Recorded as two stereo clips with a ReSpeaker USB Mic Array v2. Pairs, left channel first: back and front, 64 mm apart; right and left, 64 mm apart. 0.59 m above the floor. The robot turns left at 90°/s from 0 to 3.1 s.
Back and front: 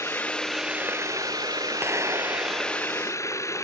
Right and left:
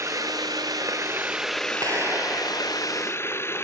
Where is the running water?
140° left; by 3.6 s 140° right.